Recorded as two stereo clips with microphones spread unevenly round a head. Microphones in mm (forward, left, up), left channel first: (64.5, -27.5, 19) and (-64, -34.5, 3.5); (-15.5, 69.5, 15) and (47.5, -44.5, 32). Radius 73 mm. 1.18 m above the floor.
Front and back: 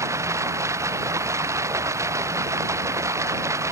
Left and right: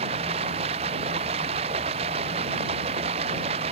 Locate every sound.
0.0 s running water: 110° right